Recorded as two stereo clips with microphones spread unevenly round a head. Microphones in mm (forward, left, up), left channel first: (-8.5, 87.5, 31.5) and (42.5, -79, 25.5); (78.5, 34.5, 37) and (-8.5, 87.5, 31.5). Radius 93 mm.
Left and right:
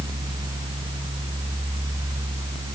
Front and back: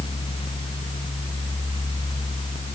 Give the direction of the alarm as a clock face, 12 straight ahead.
No alarm in this recording.